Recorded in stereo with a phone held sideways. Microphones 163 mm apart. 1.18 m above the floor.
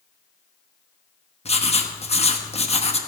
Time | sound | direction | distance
1.4 | writing | 40° left (ahead or behind) | 1.1 m